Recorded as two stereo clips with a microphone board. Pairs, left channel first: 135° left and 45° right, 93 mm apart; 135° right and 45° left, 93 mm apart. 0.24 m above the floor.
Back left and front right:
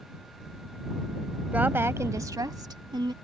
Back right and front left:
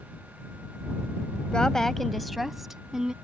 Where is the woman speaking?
75° right; by 3.1 s 35° right.